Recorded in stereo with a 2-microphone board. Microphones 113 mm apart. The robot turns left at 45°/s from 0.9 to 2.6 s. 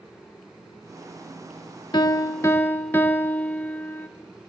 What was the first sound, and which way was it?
A piano, 55° left.